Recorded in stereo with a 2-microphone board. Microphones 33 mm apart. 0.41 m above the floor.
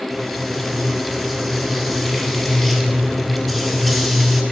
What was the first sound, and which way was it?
Frying, 5° left (ahead or behind).